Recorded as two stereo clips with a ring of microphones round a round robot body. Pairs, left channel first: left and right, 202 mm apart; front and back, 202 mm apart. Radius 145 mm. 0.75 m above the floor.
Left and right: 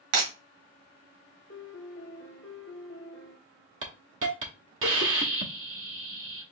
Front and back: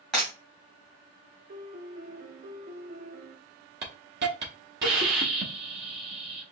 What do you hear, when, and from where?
0.1 s breaking glass: 90° right, 2 m
1.5 s a piano: 130° left, 0.9 m
3.8 s a hiss: 130° right, 0.7 m